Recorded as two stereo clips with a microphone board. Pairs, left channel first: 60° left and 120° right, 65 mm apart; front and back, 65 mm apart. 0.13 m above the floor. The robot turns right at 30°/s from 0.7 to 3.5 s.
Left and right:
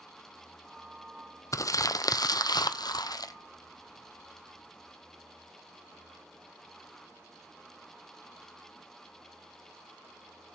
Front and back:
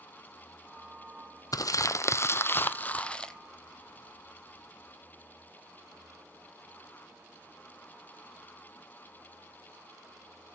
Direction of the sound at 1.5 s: 25° left.